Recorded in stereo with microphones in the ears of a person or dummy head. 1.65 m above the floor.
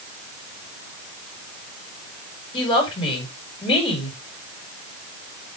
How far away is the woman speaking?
About 5 m.